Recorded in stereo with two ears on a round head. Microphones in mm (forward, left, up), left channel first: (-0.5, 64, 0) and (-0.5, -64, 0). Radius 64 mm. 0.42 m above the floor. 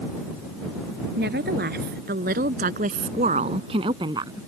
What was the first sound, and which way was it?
A woman speaking, 80° right.